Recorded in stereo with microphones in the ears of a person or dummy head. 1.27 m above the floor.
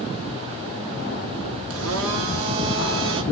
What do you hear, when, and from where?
1.7 s a blender: 70° right (ahead or behind), 1.4 m